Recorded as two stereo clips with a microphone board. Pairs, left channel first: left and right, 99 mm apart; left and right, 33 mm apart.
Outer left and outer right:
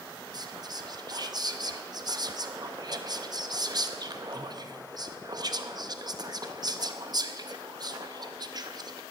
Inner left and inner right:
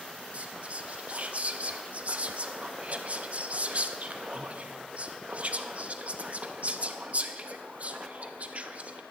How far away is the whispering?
About 0.5 m.